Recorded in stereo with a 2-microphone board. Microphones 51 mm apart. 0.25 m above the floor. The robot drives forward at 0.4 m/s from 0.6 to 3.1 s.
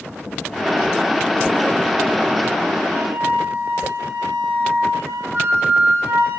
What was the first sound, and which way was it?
A flute, 50° right (ahead or behind).